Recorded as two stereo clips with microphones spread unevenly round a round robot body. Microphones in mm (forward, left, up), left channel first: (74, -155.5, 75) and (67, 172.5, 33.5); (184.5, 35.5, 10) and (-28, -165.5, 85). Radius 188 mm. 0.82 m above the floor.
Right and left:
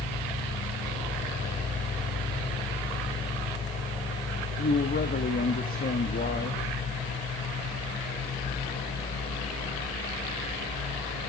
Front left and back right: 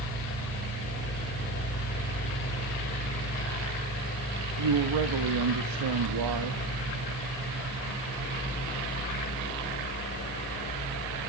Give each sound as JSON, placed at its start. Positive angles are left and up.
{"t": 4.6, "sound": "a man speaking", "azimuth_deg": -155, "distance_m": 1.4}